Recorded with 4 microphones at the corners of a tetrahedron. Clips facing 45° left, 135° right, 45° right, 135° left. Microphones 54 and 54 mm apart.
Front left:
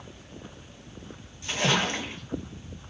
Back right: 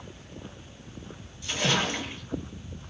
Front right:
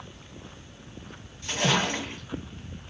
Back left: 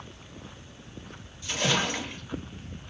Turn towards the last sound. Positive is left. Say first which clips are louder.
# front left 1 dB, front right 2 dB
turn(degrees=-5)